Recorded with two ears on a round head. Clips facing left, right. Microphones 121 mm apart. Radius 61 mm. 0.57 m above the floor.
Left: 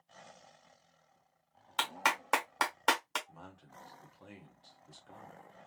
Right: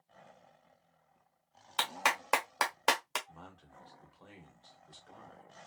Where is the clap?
5° right (ahead or behind), 1.2 m.